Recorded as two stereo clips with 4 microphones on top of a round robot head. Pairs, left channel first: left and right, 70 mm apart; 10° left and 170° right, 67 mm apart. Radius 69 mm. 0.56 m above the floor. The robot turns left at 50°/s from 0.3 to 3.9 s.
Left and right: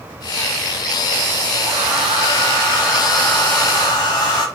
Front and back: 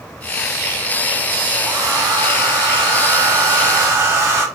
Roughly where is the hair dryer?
Right.